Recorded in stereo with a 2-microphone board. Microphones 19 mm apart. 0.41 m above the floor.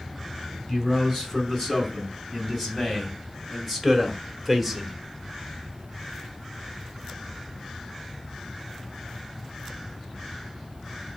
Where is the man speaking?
15° left (ahead or behind), 4.5 m; by 5.0 s 5° right (ahead or behind), 1.2 m.